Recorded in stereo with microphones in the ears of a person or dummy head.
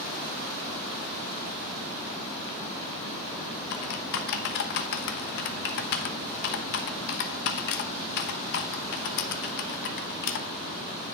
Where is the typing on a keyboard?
60° left (ahead or behind), 0.9 m.